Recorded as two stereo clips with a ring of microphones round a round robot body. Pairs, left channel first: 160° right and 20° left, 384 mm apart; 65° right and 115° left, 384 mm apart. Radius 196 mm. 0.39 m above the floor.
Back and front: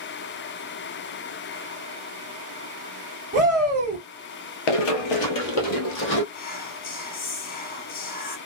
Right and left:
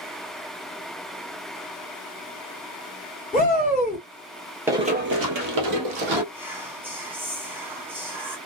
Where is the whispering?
170° right, 0.8 m.